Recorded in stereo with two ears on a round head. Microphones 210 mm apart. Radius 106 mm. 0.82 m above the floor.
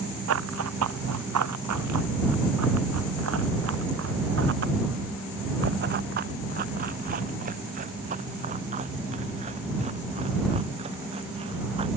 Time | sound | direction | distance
0.3 | running footsteps | 65° right (ahead or behind) | ?